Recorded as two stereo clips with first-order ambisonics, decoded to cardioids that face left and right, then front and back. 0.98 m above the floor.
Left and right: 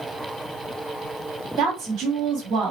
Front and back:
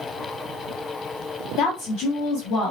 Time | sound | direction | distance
1.6 | a woman speaking | 40° right | 1.6 m